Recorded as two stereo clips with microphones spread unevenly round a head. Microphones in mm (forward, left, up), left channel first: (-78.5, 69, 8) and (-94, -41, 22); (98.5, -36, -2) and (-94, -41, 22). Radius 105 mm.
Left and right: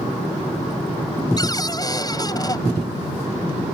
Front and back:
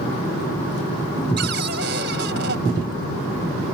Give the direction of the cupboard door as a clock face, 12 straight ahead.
7 o'clock.